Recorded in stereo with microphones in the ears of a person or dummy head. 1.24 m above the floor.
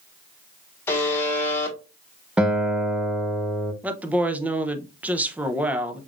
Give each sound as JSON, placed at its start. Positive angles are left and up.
{"t": 0.9, "sound": "a buzzer", "side_deg": 10, "distance_m": 1.4}
{"t": 2.4, "sound": "a guitar", "side_deg": -5, "distance_m": 0.7}
{"t": 3.8, "sound": "a woman speaking", "side_deg": -10, "distance_m": 0.7}